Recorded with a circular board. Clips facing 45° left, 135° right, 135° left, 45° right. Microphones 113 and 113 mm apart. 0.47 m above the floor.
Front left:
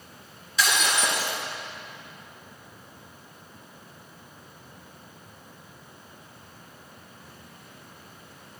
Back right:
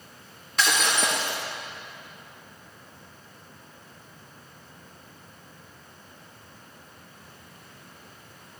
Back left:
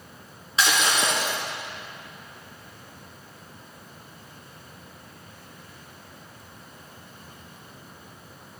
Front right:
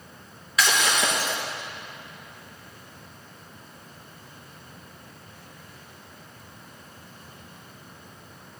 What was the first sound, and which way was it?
Breaking glass, 165° right.